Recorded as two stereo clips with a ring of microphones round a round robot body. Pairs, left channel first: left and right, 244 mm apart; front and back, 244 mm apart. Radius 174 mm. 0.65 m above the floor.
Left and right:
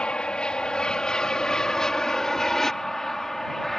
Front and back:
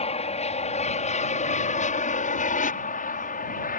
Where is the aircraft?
10° left; by 3.8 s straight ahead.